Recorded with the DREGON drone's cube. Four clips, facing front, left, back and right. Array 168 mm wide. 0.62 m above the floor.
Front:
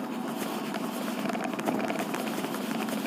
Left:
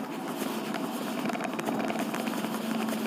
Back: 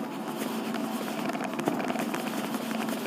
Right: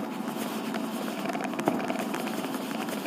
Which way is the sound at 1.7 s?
115° right.